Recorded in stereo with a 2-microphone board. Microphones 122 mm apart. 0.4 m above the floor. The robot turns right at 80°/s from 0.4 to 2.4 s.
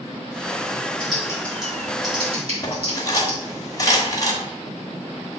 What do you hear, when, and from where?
1.0 s typing on a keyboard: 45° left (ahead or behind), 3 m; by 3.4 s 60° right (ahead or behind), 3 m
2.6 s cutlery clinking: 30° left (ahead or behind), 1.7 m